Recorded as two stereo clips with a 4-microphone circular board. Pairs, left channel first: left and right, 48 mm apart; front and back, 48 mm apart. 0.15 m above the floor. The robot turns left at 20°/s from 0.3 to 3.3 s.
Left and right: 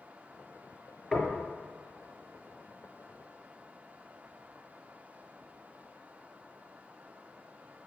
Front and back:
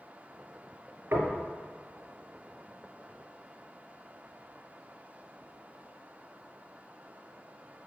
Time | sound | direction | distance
1.1 | knocking | 175° left | 1.8 m